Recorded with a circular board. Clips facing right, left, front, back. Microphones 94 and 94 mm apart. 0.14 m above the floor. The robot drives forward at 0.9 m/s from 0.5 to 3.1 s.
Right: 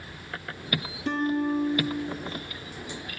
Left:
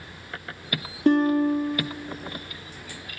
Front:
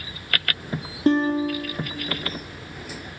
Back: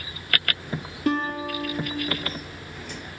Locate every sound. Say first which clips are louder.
1.1 s a guitar: left 7 dB, front 6 dB; 55° left, 1.9 m; by 2.0 s 85° left, 1.6 m